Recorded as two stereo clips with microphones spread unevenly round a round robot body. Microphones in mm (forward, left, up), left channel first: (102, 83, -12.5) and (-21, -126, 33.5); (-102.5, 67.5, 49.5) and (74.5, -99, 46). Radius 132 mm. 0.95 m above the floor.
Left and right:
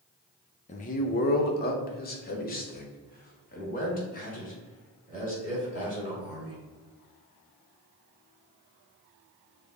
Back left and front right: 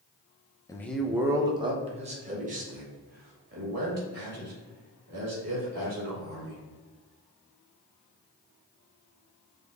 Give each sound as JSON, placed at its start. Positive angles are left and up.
{"t": 0.7, "sound": "a man speaking", "azimuth_deg": 65, "distance_m": 0.6}